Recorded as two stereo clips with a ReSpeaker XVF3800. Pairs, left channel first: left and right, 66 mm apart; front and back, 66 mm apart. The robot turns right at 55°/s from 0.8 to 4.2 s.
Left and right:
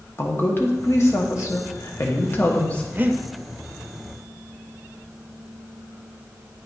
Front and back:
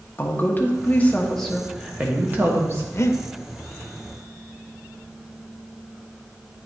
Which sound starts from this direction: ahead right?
Breathing, at 2.9 s.